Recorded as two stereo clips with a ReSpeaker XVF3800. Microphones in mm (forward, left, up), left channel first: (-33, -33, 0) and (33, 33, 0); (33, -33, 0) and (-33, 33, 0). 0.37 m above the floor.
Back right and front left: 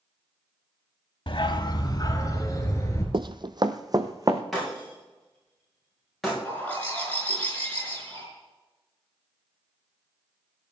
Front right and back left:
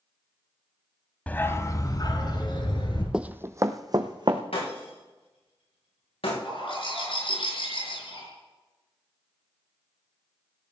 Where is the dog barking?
120° right, 0.8 m; by 3.0 s 80° right, 2.5 m.